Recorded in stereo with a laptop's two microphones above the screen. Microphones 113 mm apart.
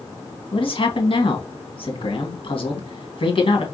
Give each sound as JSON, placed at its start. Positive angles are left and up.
{"t": 0.5, "sound": "a man speaking", "side_deg": 55, "distance_m": 1.3}